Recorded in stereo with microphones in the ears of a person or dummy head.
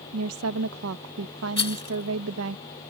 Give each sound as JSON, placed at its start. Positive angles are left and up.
{"t": 0.1, "sound": "a woman speaking", "side_deg": -80}
{"t": 1.6, "sound": "a rattle", "side_deg": 30}